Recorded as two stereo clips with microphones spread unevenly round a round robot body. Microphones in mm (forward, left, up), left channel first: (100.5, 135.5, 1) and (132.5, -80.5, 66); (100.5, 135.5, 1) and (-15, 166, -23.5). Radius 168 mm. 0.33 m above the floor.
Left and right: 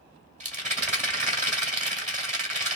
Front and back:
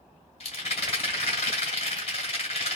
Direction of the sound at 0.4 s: 20° right.